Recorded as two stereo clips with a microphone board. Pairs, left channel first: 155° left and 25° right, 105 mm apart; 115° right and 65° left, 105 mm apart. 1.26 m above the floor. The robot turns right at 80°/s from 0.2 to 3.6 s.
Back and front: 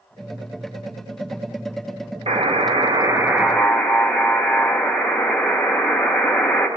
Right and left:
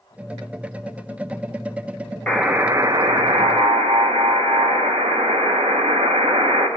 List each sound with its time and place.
2.3 s a buzzer: 30° right, 1.6 m; by 6.7 s 75° left, 1.6 m